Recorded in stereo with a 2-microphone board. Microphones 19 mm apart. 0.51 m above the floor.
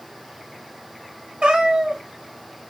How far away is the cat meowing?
About 0.9 m.